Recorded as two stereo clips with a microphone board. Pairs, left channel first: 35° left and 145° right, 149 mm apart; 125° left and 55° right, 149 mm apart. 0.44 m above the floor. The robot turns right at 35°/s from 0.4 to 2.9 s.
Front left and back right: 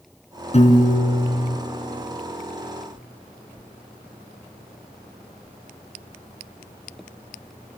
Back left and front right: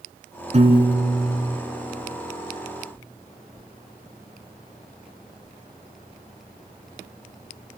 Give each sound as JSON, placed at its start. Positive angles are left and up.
{"t": 0.5, "sound": "a piano", "azimuth_deg": -10, "distance_m": 3.0}